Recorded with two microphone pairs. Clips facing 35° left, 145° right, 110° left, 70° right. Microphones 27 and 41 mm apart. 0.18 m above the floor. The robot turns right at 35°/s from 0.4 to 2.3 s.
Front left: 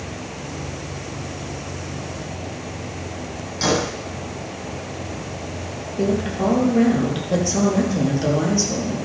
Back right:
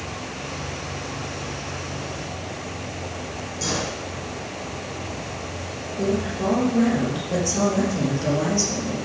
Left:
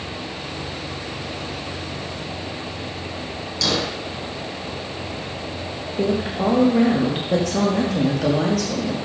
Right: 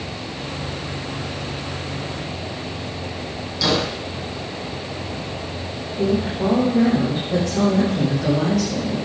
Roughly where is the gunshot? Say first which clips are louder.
Front left 7 dB, right 2 dB; ahead.